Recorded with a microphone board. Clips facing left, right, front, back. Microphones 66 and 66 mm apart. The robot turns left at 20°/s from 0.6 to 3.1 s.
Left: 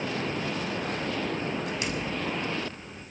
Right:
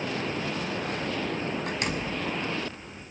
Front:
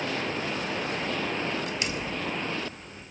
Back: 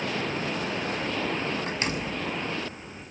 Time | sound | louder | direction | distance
1.7 | a door slam | right 1 dB, back 2 dB | 125° right | 5 m